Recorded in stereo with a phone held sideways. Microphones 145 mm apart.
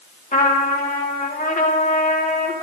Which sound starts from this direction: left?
A trumpet, at 0.3 s.